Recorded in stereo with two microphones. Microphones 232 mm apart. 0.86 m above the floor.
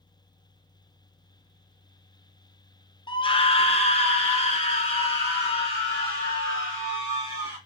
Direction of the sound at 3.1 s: 20° left (ahead or behind).